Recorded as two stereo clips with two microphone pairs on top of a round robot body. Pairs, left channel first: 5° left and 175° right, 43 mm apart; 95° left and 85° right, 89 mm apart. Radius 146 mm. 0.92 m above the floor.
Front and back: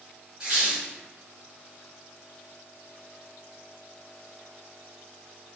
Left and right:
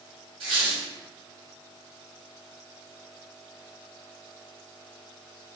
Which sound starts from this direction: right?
A squeak, at 0.4 s.